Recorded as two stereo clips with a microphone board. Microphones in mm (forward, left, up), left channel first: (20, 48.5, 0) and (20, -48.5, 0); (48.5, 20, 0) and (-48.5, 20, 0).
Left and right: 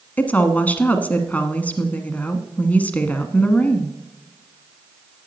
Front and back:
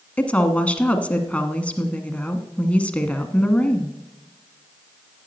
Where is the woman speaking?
50° left, 1.1 m.